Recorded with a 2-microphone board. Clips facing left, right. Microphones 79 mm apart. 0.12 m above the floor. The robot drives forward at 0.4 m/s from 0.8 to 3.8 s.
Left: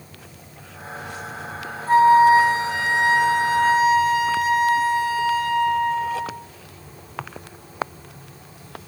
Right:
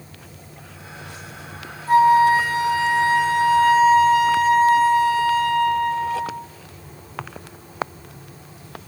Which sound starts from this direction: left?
A flute, at 1.9 s.